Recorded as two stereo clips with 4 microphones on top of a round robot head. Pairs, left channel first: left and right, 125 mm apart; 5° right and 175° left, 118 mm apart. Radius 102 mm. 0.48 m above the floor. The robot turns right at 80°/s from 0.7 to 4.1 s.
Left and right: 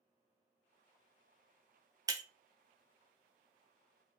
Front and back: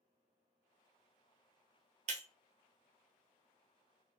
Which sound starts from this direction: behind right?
Breaking glass, at 2.1 s.